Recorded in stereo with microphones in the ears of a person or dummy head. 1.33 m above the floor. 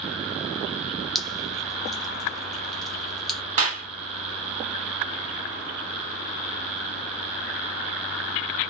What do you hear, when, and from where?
1.1 s dripping: centre (ahead or behind), 0.6 m
3.6 s a clap: 40° right (ahead or behind), 1.4 m